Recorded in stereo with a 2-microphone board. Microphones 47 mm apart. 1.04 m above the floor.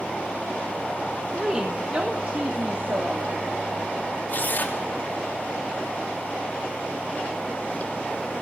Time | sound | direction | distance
1.4 | a woman speaking | 20° right (ahead or behind) | 1.4 m
4.3 | tearing paper | 45° left (ahead or behind) | 2.5 m